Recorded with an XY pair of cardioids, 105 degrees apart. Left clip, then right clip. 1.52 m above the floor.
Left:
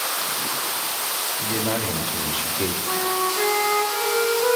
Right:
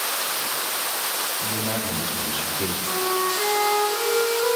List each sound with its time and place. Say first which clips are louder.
1.4 s a man speaking: left 2 dB; 50° left, 3 m; by 2.7 s 20° left, 2 m
2.8 s a flute: right 1 dB; 35° left, 7.5 m